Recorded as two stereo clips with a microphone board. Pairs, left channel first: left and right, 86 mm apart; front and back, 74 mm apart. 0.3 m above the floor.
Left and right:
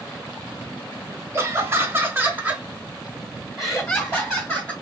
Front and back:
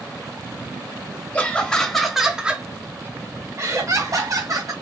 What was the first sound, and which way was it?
Laughter, 55° right.